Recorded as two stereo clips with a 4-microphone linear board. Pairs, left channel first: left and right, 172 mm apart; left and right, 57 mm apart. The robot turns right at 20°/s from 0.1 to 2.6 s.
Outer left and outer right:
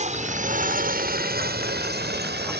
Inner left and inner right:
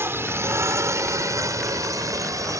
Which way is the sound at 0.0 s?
40° right (ahead or behind).